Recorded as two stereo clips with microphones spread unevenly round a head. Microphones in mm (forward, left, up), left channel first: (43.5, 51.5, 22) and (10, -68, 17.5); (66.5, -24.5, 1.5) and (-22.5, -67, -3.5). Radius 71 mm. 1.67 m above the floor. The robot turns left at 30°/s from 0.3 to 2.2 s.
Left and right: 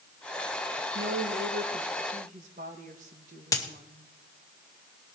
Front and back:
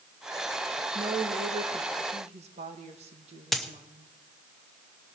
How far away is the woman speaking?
About 1.9 m.